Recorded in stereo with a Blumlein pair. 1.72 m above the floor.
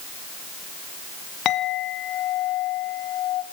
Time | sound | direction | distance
1.4 | a clink | 35° left | 1.8 m